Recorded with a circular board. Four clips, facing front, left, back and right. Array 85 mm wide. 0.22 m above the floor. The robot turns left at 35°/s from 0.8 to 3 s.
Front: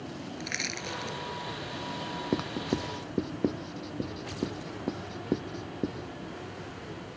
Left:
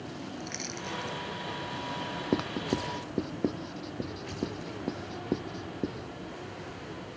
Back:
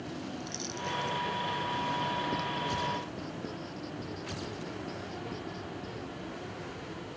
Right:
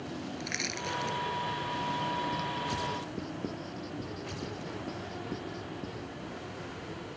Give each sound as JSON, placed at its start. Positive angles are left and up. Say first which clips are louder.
{"t": 0.4, "sound": "crushing", "louder": "right 2 dB, front 1 dB", "azimuth_deg": -25}
{"t": 2.3, "sound": "writing", "louder": "left 3 dB, front 2 dB", "azimuth_deg": 55}